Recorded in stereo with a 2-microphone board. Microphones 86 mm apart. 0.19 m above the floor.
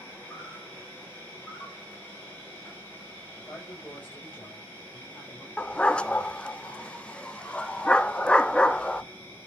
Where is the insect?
25° left (ahead or behind), 5 m.